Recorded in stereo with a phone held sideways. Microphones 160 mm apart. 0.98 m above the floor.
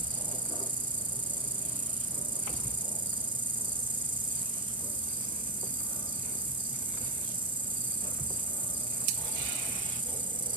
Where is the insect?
30° right (ahead or behind), 1.0 m.